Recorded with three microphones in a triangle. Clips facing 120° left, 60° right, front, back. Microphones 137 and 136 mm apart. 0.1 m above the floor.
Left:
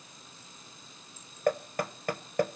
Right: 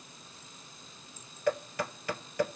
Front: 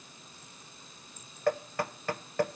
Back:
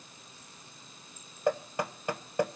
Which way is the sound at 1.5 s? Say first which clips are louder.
Left 2 dB, even; 115° left.